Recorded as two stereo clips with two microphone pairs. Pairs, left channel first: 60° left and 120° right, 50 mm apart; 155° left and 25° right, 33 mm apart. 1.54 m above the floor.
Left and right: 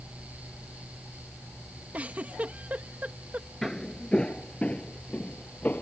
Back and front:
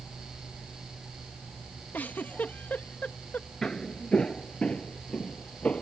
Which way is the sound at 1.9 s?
175° right.